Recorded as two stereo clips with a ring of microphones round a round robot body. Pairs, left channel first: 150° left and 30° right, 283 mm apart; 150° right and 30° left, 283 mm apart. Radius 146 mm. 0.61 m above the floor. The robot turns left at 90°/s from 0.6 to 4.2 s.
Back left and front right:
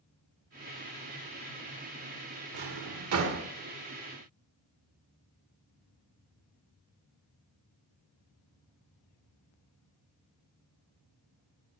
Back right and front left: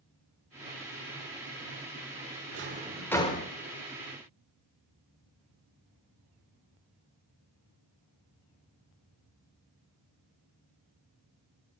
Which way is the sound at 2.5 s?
15° right.